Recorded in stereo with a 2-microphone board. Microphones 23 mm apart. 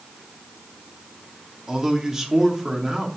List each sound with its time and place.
1.7 s a man speaking: 15° right (ahead or behind), 2.5 m